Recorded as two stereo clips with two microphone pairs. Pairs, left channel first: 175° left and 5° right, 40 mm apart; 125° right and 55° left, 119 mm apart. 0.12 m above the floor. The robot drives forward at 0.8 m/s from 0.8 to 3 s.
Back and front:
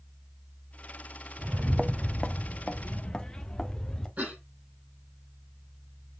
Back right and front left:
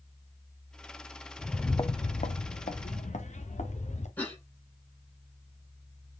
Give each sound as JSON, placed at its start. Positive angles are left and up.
{"t": 1.4, "sound": "footsteps", "azimuth_deg": -35, "distance_m": 0.7}
{"t": 4.2, "sound": "a cough", "azimuth_deg": -50, "distance_m": 4.5}